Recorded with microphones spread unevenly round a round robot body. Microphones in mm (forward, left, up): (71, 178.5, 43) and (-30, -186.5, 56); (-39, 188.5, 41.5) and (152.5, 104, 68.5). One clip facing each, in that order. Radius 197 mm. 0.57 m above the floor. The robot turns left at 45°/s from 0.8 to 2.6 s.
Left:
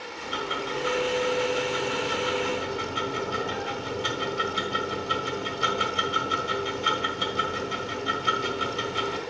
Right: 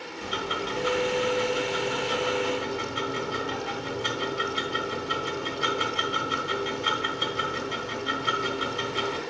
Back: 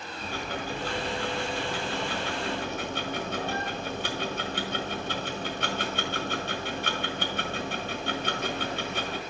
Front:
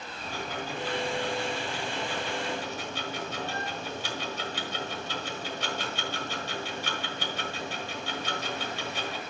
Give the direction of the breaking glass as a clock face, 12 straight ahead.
No breaking glass in this recording.